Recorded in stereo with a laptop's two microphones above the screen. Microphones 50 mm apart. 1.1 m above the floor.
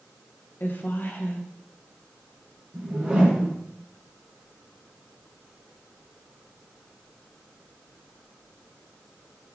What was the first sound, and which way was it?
A woman speaking, 40° left (ahead or behind).